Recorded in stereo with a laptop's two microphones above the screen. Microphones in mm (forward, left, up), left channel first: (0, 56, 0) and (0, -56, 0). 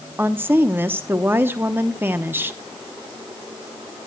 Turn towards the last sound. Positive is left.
turn(degrees=-20)  # may be behind; listen again after turning